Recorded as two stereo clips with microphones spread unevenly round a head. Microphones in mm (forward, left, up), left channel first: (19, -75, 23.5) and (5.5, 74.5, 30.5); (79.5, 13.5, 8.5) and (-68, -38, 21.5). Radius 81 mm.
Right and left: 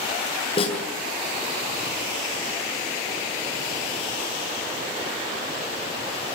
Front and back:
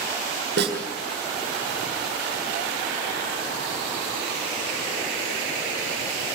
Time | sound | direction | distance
0.6 | a snare drum | 145° right | 7 m